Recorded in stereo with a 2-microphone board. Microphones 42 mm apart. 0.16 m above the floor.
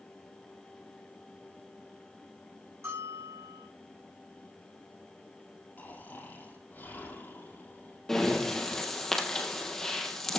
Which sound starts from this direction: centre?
Breathing, at 8.1 s.